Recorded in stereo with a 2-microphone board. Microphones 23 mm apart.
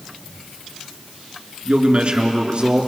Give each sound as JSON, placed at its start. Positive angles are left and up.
{"t": 1.6, "sound": "a man speaking", "side_deg": -50, "distance_m": 4.0}